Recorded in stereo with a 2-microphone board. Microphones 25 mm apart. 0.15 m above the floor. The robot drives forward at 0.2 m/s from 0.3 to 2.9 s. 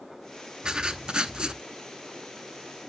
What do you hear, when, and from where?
0.6 s writing: 35° right (ahead or behind), 0.8 m; by 1.6 s 40° right (ahead or behind), 0.7 m